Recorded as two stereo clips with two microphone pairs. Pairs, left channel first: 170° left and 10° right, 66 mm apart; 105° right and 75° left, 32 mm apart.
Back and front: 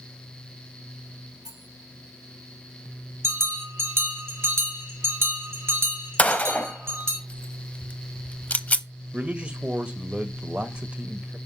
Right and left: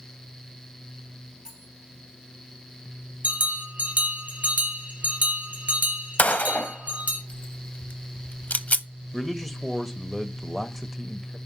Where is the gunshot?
125° right, 0.6 m.